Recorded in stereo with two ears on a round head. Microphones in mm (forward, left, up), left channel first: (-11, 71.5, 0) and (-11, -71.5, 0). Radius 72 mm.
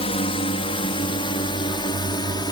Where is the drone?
40° left (ahead or behind); by 2.5 s 30° left (ahead or behind).